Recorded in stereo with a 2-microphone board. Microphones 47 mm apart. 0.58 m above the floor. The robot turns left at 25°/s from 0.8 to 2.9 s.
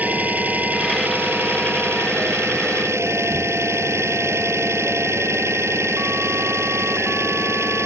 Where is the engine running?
40° right; by 7.9 s 90° right.